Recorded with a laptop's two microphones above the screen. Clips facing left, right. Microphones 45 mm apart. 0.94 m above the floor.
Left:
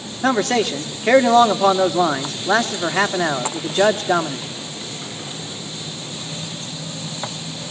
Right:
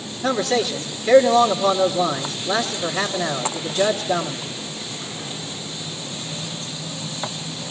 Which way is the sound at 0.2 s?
75° left (ahead or behind).